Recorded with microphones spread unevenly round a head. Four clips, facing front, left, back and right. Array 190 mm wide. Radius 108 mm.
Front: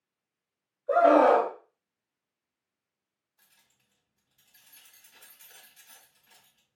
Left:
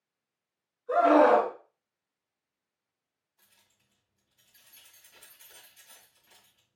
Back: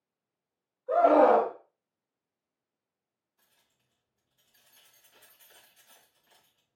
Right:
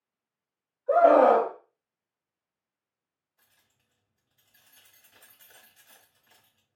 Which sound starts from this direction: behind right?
A scream, at 0.9 s.